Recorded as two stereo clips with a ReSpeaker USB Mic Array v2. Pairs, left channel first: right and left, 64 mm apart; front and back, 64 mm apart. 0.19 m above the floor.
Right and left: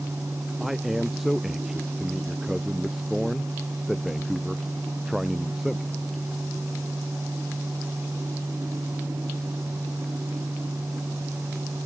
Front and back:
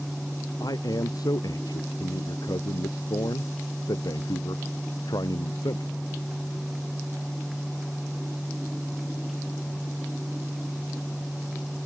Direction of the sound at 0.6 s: 5° left.